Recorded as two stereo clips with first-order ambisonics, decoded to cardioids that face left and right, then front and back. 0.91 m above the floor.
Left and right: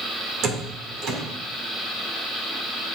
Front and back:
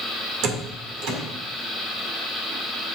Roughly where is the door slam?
Behind right.